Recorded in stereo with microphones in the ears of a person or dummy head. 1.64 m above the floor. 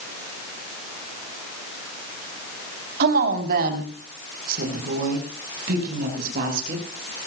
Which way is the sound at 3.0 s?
60° right (ahead or behind).